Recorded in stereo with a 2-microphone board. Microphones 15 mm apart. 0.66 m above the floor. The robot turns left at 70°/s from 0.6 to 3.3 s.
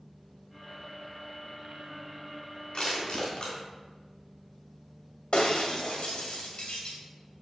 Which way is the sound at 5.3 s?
85° left.